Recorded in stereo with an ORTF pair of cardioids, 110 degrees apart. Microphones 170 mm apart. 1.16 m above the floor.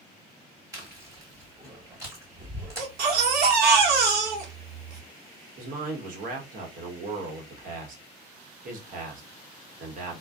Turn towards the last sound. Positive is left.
turn(degrees=-50)